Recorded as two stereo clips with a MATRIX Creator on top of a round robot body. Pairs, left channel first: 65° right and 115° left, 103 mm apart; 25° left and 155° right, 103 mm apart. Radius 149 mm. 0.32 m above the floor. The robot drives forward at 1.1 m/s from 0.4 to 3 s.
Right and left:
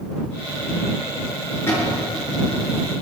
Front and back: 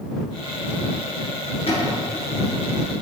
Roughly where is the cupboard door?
Ahead.